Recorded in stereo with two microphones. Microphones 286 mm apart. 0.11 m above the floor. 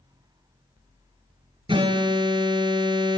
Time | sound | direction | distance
1.7 | an alarm | 15° right (ahead or behind) | 1.6 m